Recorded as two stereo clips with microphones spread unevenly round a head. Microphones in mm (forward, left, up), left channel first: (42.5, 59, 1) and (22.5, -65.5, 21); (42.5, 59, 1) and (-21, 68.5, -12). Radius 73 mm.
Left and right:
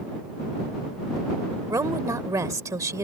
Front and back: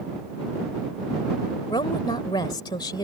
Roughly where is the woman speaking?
Ahead right.